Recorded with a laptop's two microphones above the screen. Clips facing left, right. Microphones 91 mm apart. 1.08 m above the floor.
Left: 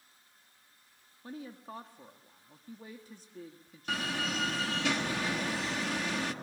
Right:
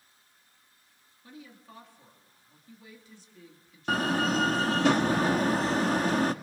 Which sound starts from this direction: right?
A door slam, at 3.9 s.